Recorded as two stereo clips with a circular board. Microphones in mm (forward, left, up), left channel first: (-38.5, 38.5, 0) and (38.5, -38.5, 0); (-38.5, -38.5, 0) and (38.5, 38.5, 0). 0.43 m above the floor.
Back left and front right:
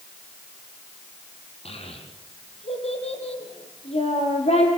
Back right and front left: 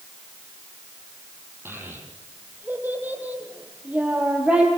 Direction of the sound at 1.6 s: 115° left.